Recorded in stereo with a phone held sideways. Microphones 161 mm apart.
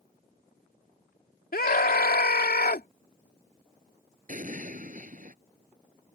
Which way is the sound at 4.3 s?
60° right (ahead or behind).